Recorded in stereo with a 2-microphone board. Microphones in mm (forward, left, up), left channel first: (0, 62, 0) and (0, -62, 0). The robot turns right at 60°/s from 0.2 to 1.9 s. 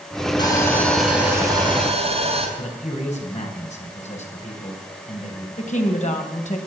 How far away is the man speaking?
About 3.5 m.